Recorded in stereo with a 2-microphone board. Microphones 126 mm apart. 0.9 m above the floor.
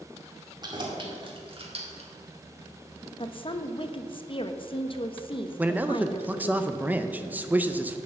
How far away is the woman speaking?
About 0.8 m.